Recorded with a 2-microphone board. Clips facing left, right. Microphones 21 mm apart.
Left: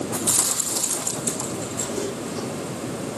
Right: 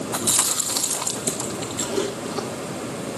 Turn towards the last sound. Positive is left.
turn(degrees=-60)  # may be behind; listen again after turning